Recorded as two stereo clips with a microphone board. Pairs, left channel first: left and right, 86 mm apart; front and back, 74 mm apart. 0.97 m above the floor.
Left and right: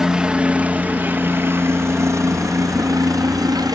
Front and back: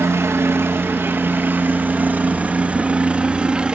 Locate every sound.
0.0 s a helicopter: 165° right; by 3.8 s 105° right